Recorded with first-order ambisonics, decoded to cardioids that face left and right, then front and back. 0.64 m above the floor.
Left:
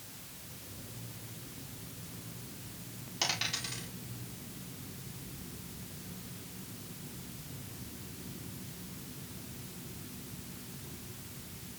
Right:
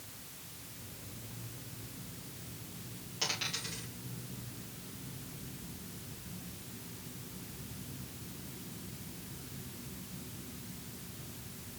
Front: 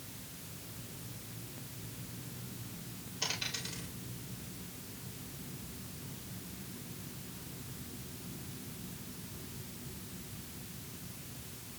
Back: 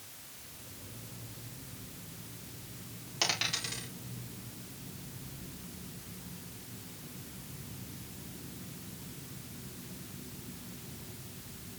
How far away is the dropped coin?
About 6.5 m.